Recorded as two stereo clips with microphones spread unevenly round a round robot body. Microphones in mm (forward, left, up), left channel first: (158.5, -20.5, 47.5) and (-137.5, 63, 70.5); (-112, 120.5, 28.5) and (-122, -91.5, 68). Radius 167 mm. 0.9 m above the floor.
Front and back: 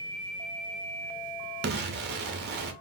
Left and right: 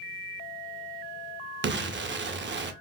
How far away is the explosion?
About 0.7 m.